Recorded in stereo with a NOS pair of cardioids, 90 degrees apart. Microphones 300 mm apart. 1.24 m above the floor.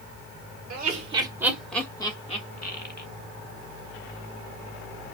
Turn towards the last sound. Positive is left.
turn(degrees=35)